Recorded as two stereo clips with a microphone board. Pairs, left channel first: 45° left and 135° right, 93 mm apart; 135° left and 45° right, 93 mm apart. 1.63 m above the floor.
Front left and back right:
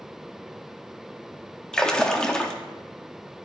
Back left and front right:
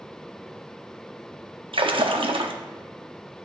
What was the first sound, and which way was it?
A splash, 35° right.